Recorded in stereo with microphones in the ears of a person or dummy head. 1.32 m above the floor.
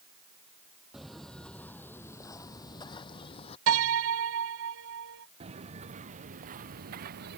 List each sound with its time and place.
0.9 s footsteps: centre (ahead or behind); by 3.6 s 35° left (ahead or behind)
3.7 s a piano: 80° right
5.4 s footsteps: 35° right (ahead or behind); by 7.4 s 55° right (ahead or behind)